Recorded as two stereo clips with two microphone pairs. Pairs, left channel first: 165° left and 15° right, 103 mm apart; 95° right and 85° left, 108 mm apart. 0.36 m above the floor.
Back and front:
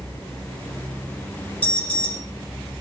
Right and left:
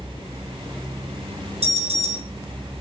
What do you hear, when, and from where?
1.6 s an alarm: 90° left, 7.5 m